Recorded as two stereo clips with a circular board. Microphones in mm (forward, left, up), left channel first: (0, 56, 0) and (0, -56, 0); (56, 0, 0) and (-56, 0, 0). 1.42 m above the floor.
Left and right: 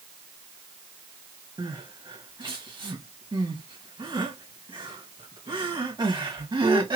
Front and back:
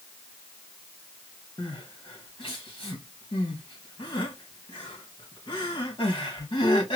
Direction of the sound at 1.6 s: 45° right.